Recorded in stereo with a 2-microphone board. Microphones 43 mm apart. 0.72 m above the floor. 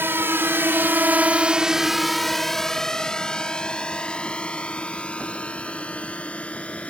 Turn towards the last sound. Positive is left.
turn(degrees=30)  # may be behind; listen again after turning